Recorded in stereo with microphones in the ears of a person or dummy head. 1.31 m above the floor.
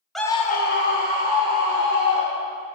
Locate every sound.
0.1 s a scream: 5° left (ahead or behind), 0.6 m; by 2.6 s 70° left (ahead or behind), 3.5 m